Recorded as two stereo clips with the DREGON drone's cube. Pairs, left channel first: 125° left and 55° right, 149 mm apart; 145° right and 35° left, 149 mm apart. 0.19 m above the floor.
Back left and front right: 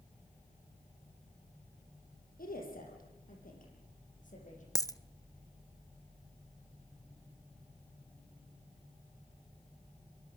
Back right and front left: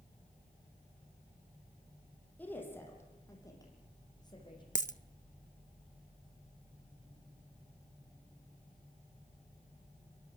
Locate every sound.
2.4 s a woman speaking: 135° left, 7 m; by 4.6 s 155° left, 9 m
4.8 s a dropped coin: 170° right, 0.5 m